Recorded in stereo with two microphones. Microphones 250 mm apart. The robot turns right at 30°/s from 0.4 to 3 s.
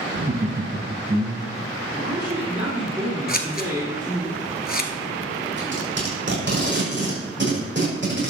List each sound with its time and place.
0.1 s laughter: 65° right, 1.6 m; by 1.7 s 30° right, 1.6 m
1.9 s a man speaking: 45° right, 4.5 m; by 4.3 s 15° right, 4.5 m
3.3 s scissors: 40° left (ahead or behind), 1.2 m
5.6 s tape being pulled: 50° right (ahead or behind), 6.5 m